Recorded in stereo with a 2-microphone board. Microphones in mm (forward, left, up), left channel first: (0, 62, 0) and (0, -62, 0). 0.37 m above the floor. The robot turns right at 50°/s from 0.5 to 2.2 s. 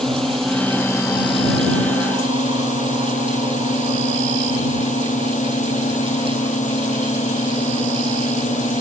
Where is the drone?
5° left; by 8.8 s 90° left.